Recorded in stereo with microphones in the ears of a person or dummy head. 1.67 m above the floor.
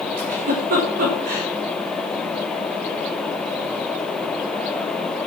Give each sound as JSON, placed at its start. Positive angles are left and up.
{"t": 0.2, "sound": "a giggle", "side_deg": -45, "distance_m": 5.0}